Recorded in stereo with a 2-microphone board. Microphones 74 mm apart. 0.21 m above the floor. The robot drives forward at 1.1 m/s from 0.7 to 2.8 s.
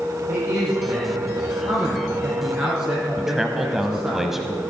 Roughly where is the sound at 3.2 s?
Centre.